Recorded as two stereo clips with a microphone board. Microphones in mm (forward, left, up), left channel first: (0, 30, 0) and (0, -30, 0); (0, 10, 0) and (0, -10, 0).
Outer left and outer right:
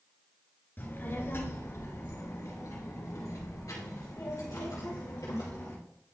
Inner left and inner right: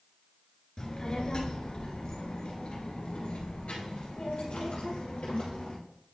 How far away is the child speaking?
About 2 m.